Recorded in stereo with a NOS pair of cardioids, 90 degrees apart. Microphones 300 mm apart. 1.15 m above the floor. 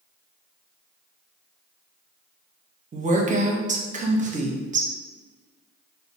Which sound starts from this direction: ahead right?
A woman speaking, at 2.9 s.